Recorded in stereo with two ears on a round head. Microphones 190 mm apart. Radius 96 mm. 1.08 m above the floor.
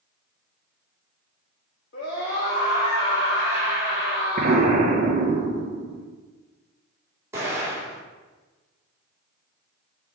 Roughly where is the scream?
Left.